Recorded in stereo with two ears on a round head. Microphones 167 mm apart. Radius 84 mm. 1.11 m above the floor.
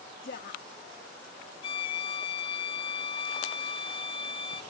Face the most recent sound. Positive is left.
turn(degrees=30)  # may be behind; listen again after turning